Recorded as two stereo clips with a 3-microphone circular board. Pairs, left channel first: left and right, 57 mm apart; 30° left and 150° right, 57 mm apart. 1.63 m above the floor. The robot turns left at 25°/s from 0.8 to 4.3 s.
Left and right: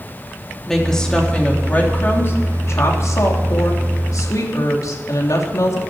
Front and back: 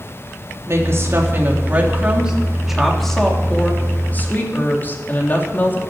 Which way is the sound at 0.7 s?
170° left.